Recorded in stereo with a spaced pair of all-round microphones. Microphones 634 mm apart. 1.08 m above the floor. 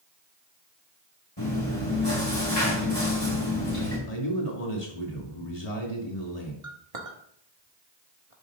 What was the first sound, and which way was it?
Chewing, 40° left (ahead or behind).